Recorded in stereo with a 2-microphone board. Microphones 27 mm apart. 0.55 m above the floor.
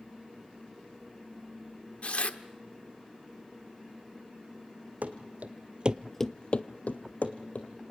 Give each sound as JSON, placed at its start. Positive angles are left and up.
{"t": 2.0, "sound": "tearing paper", "side_deg": 55, "distance_m": 1.1}
{"t": 5.0, "sound": "running footsteps", "side_deg": -70, "distance_m": 1.6}